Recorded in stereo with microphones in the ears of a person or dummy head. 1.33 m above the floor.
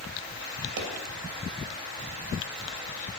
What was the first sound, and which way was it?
A pop, 65° right (ahead or behind).